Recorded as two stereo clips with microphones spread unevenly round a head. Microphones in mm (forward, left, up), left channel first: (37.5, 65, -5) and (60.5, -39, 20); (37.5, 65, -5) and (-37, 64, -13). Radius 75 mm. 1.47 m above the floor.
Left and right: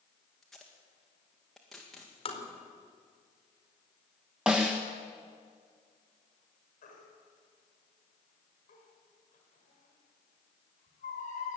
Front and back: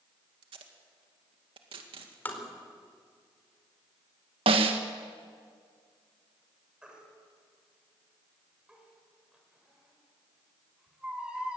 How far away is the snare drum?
About 1.3 m.